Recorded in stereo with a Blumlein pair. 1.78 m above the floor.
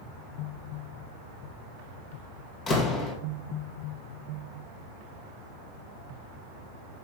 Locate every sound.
2.7 s a door slam: 25° left, 2 m